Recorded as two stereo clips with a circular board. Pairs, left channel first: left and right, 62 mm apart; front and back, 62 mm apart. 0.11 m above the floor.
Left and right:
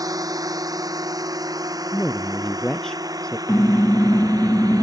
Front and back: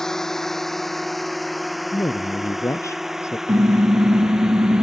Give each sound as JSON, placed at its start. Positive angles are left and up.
{"t": 0.0, "sound": "a drone", "azimuth_deg": -85}
{"t": 1.9, "sound": "a man speaking", "azimuth_deg": 10}
{"t": 3.5, "sound": "a car horn", "azimuth_deg": 160}